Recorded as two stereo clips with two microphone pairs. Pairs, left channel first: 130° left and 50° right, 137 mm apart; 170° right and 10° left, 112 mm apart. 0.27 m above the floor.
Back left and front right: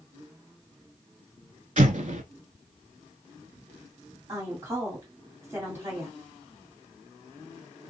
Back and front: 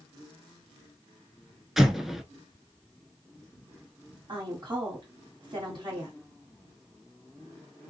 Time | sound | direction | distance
1.8 | an explosion | 80° right | 0.6 m
4.3 | a woman speaking | 10° left | 2.0 m